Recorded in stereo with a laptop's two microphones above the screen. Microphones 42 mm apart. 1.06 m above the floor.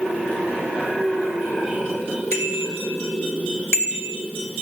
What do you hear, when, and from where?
2.3 s a bicycle bell: 85° left, 4 m